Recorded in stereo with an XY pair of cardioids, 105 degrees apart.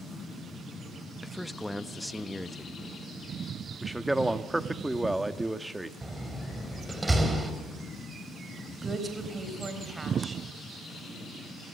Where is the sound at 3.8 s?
10° right, 1.4 m.